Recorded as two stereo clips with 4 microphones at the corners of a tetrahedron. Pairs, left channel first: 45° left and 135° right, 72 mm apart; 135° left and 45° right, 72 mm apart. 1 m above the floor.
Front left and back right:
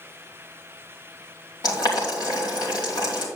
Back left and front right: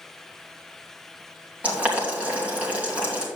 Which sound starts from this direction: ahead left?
Boiling, at 1.6 s.